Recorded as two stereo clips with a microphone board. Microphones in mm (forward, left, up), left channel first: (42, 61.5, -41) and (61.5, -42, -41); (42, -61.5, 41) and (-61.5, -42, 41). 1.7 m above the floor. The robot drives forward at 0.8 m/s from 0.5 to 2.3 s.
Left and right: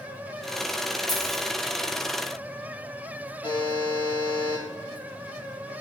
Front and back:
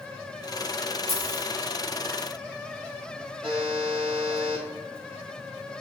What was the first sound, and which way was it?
A dropped coin, 170° right.